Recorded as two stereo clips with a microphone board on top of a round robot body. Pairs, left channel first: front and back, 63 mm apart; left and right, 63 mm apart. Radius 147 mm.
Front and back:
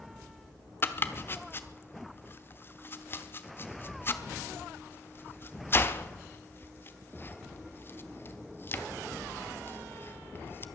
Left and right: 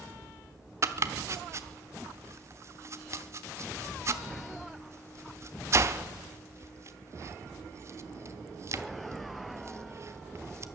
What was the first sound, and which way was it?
Chopping, 50° right.